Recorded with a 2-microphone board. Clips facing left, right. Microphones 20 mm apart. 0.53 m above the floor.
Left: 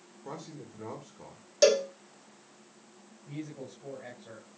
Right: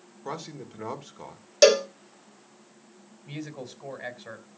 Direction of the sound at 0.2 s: 45° right (ahead or behind).